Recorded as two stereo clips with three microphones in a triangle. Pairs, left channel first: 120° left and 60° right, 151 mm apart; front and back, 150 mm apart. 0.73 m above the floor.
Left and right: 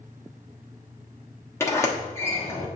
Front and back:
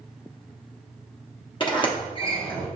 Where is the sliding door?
50° left, 0.9 m.